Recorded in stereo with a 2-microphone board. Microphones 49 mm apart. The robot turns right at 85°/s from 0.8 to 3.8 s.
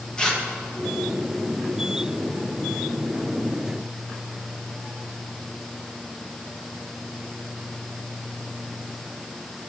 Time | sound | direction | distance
0.2 | tearing paper | 15° left (ahead or behind) | 1.0 m